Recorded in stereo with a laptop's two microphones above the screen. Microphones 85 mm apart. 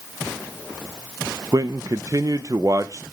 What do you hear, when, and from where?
1.5 s a man speaking: 45° right (ahead or behind), 0.6 m